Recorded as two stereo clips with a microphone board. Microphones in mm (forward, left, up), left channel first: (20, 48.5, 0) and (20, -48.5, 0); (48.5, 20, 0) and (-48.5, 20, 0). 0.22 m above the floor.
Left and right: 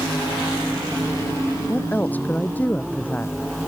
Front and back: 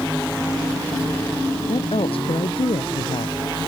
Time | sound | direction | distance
1.7 | a woman speaking | 15° left | ?